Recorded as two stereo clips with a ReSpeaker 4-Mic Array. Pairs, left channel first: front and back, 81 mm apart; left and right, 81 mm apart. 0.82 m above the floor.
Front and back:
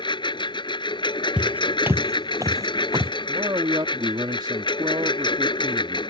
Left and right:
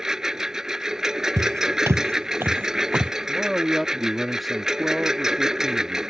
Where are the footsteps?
110° right; by 3.1 s 160° right.